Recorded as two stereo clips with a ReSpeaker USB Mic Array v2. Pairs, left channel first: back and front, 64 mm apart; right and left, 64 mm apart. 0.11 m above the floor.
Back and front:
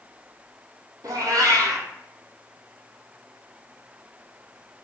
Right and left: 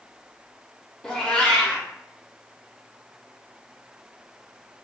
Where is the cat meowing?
10° right, 0.8 m.